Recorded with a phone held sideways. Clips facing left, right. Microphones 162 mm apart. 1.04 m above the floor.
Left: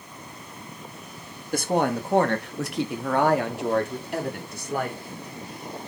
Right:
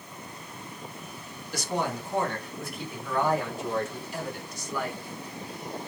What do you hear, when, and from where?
1.5 s a woman speaking: 50° left (ahead or behind), 1.7 m; by 5.0 s 55° left (ahead or behind), 3.5 m